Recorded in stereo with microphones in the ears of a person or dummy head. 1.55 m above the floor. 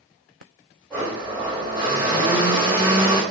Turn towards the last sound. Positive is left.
turn(degrees=0)  # may be behind; listen again after turning